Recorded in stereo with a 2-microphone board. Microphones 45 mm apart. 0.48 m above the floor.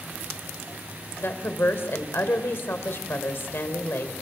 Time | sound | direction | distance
1.2 | a woman speaking | 55° left (ahead or behind) | 2 m